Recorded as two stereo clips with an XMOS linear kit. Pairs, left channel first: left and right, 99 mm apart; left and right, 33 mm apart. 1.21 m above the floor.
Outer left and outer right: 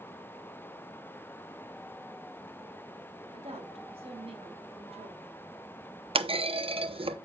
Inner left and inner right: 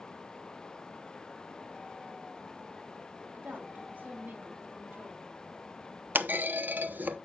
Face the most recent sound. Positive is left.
turn(degrees=-65)  # may be behind; listen again after turning